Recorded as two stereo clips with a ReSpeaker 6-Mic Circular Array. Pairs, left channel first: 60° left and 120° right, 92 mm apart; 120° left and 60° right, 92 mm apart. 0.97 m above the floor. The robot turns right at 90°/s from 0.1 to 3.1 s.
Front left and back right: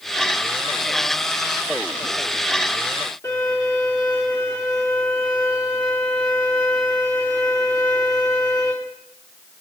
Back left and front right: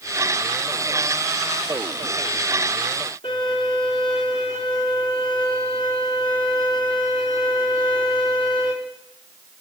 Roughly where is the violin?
Behind left.